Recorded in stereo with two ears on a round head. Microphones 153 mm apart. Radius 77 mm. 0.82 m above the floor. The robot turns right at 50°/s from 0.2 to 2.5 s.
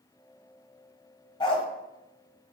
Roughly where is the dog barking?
Left.